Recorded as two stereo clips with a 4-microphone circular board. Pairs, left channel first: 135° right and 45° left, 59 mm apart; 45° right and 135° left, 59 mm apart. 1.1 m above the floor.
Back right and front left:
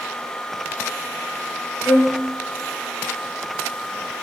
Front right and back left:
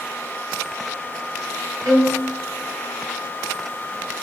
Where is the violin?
125° left, 3.5 m.